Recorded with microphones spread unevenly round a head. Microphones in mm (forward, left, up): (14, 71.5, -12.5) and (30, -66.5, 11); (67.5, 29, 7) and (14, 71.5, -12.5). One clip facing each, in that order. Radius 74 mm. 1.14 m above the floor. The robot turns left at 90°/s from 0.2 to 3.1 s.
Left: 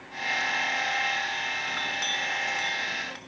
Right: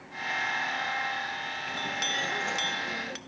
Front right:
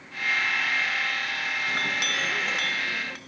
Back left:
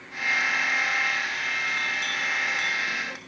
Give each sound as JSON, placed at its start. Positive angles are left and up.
{"t": 1.7, "sound": "a clink", "azimuth_deg": 0, "distance_m": 1.1}